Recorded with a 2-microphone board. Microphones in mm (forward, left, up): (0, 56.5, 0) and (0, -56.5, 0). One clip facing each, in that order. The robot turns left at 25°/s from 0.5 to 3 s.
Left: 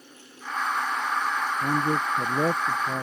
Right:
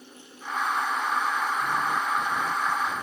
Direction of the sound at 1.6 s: 110° left.